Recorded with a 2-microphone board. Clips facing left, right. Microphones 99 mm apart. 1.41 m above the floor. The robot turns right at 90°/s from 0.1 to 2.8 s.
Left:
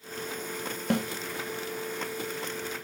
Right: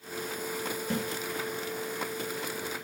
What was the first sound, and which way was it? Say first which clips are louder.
A snare drum: left 6 dB; 55° left (ahead or behind).